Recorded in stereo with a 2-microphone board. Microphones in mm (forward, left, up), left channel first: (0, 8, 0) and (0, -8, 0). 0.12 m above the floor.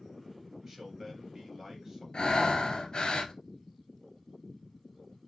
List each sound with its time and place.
0.6 s a man speaking: 25° right (ahead or behind), 2 m
2.1 s breathing: 55° left (ahead or behind), 0.7 m